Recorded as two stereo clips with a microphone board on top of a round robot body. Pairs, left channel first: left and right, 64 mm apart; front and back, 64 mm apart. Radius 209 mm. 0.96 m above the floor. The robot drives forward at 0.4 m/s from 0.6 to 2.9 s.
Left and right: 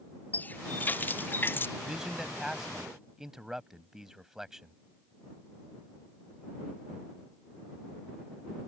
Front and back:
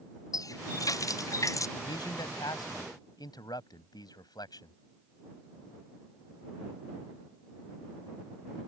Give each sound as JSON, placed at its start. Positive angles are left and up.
{"t": 0.3, "sound": "a running tap", "azimuth_deg": 30}
{"t": 1.8, "sound": "a man speaking", "azimuth_deg": -5}